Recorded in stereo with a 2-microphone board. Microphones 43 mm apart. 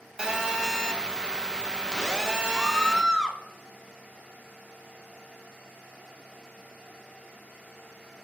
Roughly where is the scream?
Centre.